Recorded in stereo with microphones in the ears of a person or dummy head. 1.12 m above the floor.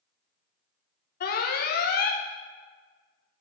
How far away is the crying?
I don't hear crying.